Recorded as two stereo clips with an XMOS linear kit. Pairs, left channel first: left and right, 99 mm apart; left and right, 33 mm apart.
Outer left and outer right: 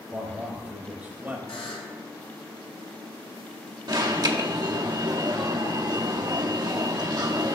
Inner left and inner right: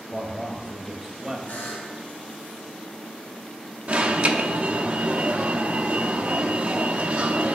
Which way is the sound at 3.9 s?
40° right (ahead or behind).